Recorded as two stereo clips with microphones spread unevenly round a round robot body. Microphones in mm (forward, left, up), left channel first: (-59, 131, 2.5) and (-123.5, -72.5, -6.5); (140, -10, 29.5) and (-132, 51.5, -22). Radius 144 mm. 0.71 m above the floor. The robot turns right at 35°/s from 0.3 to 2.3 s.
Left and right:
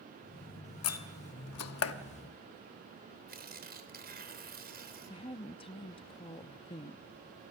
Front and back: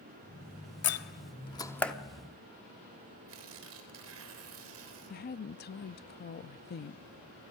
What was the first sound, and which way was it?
A door slam, 40° left.